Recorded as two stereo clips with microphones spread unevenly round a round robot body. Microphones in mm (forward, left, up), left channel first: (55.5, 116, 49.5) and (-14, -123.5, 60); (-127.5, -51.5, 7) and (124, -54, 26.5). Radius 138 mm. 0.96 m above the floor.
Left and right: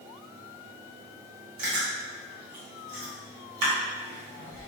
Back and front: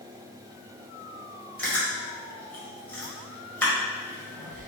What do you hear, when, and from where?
1.6 s chewing: 95° right, 1.2 m